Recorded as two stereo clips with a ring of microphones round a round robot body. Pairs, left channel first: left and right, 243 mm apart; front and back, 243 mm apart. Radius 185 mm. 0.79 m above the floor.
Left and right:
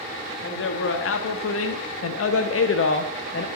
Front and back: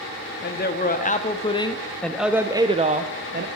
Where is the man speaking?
45° left, 1.6 m; by 3.5 s 135° left, 1.3 m.